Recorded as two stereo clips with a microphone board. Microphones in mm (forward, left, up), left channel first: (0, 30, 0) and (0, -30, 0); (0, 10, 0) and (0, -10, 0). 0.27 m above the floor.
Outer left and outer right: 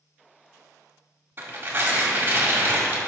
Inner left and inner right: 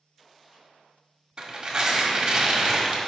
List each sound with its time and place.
1.4 s tearing paper: 35° right (ahead or behind), 1.5 m